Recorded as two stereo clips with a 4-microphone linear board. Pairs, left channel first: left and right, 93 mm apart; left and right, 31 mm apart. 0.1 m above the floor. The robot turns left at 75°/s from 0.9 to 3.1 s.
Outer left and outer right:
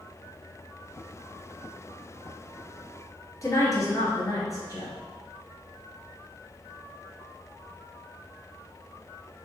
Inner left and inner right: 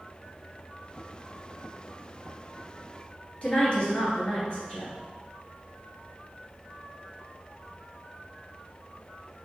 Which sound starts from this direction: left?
A woman speaking, at 3.4 s.